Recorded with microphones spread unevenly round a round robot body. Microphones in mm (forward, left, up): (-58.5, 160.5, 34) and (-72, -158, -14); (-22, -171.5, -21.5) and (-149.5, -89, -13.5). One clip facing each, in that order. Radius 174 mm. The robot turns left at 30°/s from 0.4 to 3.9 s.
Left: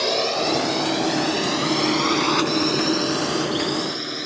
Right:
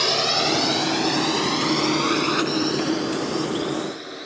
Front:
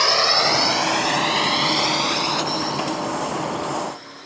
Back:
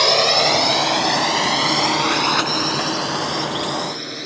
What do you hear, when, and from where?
0.0 s a drone: 150° right; by 4.3 s 125° left